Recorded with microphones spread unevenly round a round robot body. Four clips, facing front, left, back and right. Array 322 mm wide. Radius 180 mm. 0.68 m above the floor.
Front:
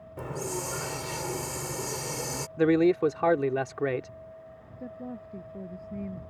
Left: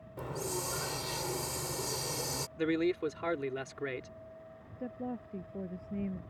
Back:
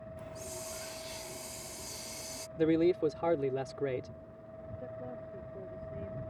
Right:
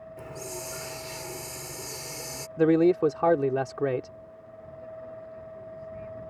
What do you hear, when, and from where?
0.2 s a hiss: 10° left
2.6 s a man speaking: 45° right
4.8 s a woman speaking: 55° left